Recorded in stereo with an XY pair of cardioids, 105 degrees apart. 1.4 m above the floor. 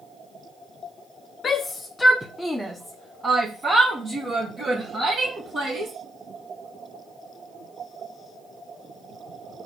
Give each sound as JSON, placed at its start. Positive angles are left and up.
{"t": 1.4, "sound": "a shout", "azimuth_deg": 45, "distance_m": 0.7}